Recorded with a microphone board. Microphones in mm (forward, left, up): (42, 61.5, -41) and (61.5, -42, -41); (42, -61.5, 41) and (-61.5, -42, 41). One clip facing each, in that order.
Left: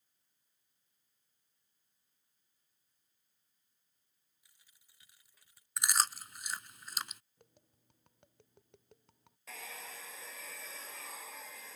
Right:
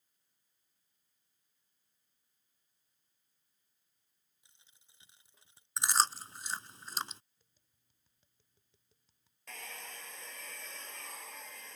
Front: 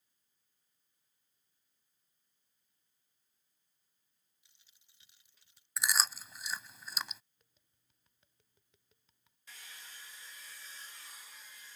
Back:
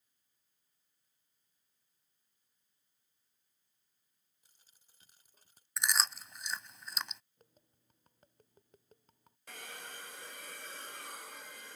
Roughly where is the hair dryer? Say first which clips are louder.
Even, back 7 dB; behind.